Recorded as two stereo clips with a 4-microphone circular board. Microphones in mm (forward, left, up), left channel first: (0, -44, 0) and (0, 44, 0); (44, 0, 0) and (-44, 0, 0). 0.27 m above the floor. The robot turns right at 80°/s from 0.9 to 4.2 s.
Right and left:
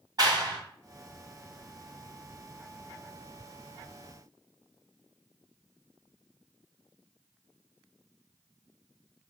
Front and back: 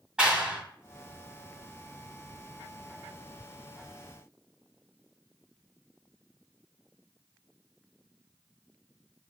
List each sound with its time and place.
0.2 s a clap: 100° left, 1.6 m